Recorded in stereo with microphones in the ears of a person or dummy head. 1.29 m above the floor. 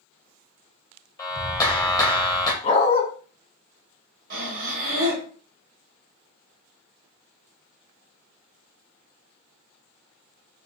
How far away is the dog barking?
About 1.8 m.